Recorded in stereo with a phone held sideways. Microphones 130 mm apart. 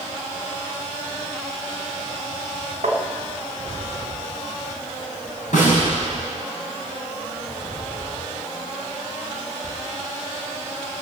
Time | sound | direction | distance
2.8 | tapping | 65° right (ahead or behind) | 1.8 m
5.5 | a snare drum | 65° left (ahead or behind) | 6.5 m